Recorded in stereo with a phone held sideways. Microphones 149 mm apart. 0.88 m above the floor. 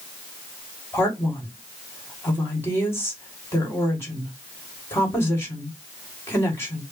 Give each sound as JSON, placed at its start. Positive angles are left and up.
{"t": 0.9, "sound": "a man speaking", "side_deg": 15, "distance_m": 1.9}